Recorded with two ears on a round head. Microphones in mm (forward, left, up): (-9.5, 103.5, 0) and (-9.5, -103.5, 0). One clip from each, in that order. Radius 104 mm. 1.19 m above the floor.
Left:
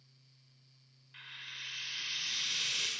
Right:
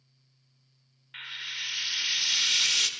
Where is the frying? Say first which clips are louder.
Right 10 dB; 55° right (ahead or behind), 1.4 m.